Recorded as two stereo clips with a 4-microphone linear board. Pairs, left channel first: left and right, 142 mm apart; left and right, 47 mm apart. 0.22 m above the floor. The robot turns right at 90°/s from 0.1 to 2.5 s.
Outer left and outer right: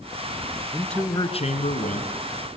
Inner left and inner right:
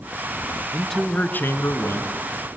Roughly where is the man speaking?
Ahead.